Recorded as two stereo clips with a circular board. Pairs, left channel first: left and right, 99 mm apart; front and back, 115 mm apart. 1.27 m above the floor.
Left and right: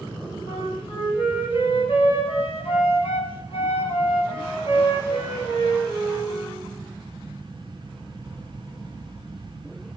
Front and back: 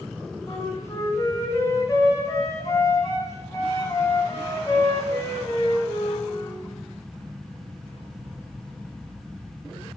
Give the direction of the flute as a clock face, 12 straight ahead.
10 o'clock.